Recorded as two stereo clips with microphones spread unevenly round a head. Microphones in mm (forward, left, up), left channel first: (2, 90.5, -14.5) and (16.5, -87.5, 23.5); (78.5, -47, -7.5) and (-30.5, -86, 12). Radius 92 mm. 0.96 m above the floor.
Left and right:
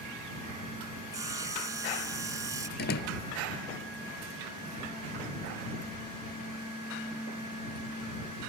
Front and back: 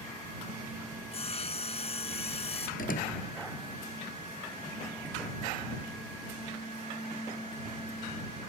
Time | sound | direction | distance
1.1 | sawing | 15° right | ?
2.8 | a door slam | 60° left | ?